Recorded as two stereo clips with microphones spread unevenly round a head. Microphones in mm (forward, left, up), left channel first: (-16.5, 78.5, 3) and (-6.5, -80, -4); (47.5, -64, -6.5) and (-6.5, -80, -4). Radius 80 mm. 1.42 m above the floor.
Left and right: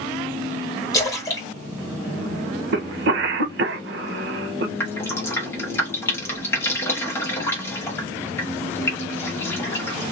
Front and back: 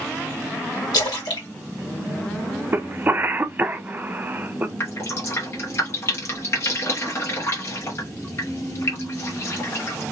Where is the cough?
105° right, 0.9 m.